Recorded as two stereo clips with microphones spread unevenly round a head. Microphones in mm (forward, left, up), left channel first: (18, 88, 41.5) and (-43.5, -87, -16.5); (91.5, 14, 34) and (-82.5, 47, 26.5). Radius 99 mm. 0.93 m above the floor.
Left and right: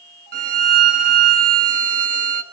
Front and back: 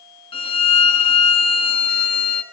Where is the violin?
75° right, 1.4 m.